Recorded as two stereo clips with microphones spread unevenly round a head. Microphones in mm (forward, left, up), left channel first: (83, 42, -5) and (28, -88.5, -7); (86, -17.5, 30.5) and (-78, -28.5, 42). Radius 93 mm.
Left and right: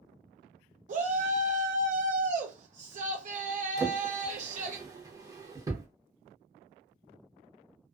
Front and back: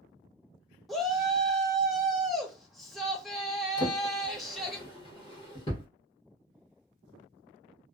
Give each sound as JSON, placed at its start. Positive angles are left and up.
{"t": 0.9, "sound": "a shout", "azimuth_deg": -85, "distance_m": 0.5}
{"t": 3.8, "sound": "a drawer", "azimuth_deg": -50, "distance_m": 0.9}